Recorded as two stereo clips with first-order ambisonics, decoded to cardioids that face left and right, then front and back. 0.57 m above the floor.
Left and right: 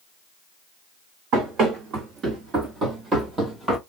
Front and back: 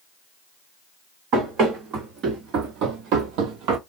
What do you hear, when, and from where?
1.3 s running footsteps: 135° right, 1.8 m; by 3.8 s 175° right, 0.9 m